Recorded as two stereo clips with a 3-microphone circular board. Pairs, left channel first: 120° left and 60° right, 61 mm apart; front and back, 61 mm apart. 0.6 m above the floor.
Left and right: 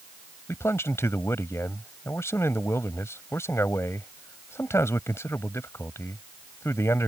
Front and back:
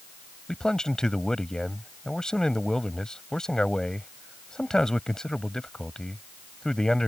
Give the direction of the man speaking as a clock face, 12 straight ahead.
9 o'clock.